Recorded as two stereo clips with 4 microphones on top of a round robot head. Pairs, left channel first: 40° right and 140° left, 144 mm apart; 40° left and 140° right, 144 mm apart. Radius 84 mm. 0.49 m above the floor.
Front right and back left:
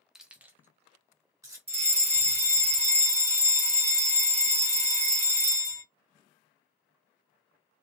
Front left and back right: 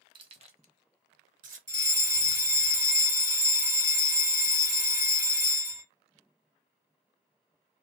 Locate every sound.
0.1 s keys jangling: 140° right, 0.7 m; by 1.6 s 155° right, 1.5 m
1.7 s a fire alarm: 155° left, 2.5 m